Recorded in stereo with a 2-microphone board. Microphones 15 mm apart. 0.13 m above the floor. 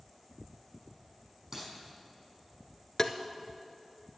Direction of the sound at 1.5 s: 30° right (ahead or behind).